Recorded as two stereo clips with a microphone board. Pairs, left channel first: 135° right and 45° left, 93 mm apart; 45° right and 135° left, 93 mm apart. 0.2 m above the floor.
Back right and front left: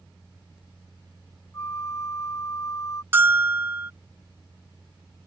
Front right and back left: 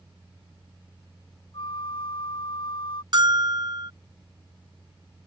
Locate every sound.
1.5 s a flute: 75° right
3.1 s a bell: 105° left